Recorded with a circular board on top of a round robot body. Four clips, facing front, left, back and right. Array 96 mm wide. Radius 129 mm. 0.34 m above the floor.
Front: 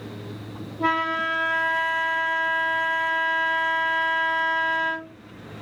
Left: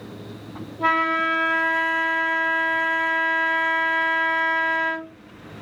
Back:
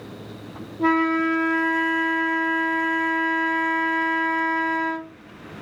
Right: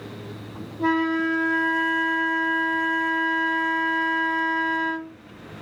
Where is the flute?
65° left, 1.8 m.